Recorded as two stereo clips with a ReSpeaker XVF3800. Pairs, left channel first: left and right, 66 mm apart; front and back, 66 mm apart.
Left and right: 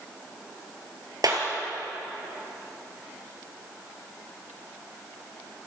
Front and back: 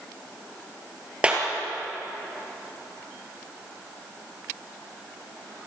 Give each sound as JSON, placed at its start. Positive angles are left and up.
{"t": 1.2, "sound": "a clap", "azimuth_deg": -110, "distance_m": 4.0}